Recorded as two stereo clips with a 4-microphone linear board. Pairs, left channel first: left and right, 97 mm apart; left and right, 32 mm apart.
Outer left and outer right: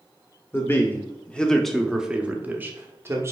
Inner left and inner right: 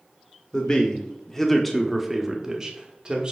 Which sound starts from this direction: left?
A man speaking, at 0.5 s.